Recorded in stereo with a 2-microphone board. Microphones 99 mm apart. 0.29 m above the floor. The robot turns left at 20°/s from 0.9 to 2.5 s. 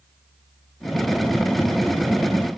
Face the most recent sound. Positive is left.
No sound to turn to.